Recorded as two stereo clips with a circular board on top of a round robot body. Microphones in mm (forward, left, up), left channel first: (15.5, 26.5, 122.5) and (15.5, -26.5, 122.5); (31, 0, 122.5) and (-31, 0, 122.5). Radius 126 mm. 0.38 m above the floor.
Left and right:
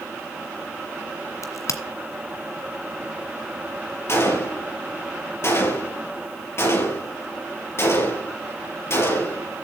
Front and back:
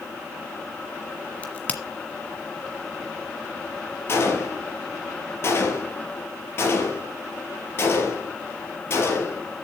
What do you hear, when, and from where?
1.4 s a crack: 65° left, 1.8 m
4.1 s a gunshot: 50° left, 4.5 m